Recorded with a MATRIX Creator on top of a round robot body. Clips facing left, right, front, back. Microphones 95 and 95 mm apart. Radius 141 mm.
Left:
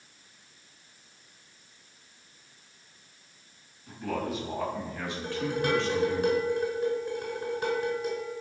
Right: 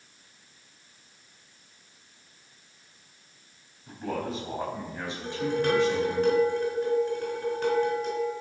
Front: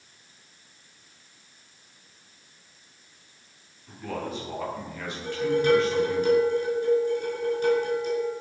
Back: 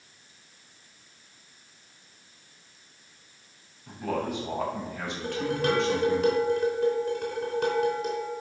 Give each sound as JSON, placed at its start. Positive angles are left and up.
{"t": 3.9, "sound": "a man speaking", "azimuth_deg": -145, "distance_m": 4.0}
{"t": 5.2, "sound": "dishes clattering", "azimuth_deg": 170, "distance_m": 4.5}